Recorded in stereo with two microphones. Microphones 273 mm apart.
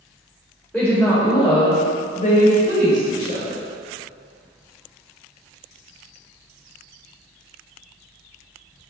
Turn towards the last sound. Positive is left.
turn(degrees=30)  # may be behind; listen again after turning